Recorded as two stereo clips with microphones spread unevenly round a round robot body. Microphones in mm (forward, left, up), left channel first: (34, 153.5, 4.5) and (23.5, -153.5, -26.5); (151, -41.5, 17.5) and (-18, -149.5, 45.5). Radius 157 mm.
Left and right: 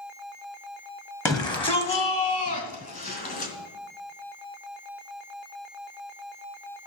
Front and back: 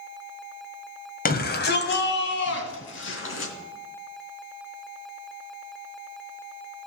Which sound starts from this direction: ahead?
A shout, at 1.2 s.